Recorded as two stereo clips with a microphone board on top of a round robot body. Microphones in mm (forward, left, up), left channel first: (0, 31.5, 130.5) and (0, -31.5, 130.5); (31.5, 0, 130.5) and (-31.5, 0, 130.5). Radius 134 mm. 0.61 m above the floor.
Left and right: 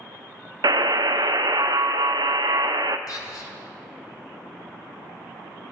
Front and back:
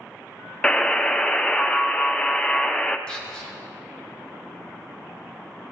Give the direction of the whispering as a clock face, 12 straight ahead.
9 o'clock.